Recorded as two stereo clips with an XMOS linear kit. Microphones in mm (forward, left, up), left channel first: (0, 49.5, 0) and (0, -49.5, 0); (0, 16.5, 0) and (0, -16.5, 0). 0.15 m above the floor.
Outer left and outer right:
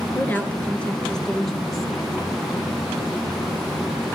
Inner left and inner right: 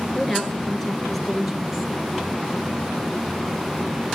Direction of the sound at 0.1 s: 20° left (ahead or behind).